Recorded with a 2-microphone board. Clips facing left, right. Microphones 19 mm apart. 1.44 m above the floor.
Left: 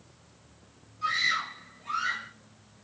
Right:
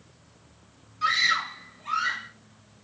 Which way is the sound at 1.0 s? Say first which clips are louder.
Right 4 dB; 40° right (ahead or behind).